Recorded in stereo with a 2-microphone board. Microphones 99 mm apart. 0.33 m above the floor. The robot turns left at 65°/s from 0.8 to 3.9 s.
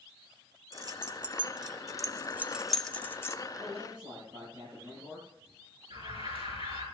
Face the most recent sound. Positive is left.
turn(degrees=-70)  # may be behind; listen again after turning